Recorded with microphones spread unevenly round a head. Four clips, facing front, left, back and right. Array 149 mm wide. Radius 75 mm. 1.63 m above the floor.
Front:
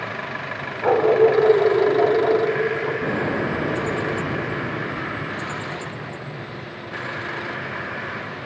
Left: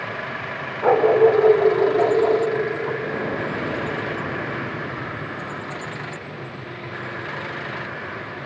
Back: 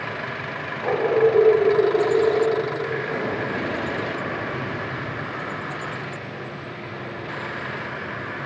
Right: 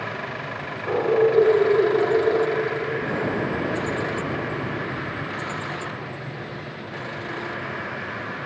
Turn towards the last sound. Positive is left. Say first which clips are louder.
# right 1 dB, front 3 dB
turn(degrees=-30)